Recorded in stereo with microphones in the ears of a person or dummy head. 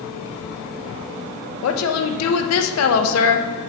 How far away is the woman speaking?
About 0.7 m.